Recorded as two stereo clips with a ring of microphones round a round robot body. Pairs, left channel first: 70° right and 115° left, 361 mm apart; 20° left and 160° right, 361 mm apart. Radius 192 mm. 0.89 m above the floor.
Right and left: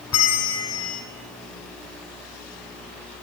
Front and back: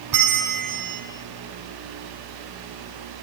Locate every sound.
0.1 s a bell: 120° right, 2.5 m